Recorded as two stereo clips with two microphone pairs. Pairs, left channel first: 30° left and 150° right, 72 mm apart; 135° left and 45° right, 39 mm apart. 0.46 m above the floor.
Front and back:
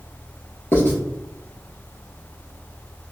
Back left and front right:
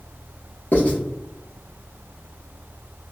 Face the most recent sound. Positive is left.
turn(degrees=90)